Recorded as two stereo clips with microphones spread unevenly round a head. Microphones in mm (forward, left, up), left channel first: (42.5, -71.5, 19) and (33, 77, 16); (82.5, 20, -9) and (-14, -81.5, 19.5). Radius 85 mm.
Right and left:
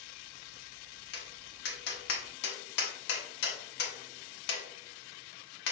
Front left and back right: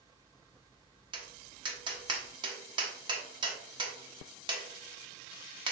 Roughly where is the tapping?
Right.